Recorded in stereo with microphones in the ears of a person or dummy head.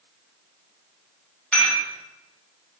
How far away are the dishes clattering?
About 4.5 m.